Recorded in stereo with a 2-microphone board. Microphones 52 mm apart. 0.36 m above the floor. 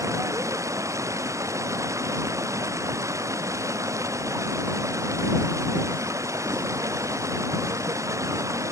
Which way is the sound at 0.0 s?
75° right (ahead or behind).